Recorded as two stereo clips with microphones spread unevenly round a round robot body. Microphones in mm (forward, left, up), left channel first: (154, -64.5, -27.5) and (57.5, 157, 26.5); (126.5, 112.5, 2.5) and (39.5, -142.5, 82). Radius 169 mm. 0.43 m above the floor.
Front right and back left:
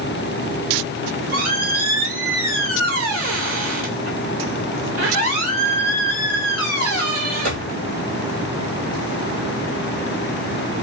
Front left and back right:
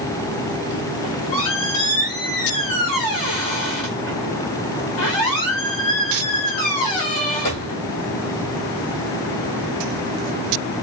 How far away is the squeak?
About 1.2 m.